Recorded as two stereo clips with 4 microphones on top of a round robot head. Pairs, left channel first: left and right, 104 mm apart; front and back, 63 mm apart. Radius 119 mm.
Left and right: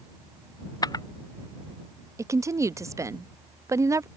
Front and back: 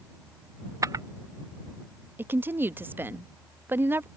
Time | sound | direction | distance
0.8 | a camera shutter | 145° left | ?
2.2 | a woman speaking | 140° right | ?